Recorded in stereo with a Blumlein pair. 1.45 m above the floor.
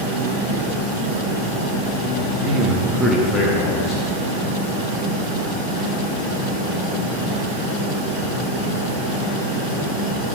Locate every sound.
2.2 s a man speaking: 55° right, 1.6 m; by 4.2 s 40° left, 2 m